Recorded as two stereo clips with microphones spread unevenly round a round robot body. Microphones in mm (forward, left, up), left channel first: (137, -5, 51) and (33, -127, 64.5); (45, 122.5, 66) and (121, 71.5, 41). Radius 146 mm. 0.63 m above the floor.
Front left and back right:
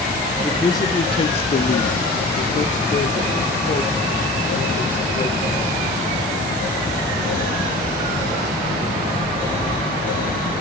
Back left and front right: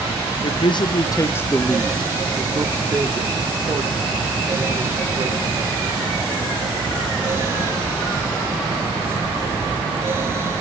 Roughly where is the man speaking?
Behind left.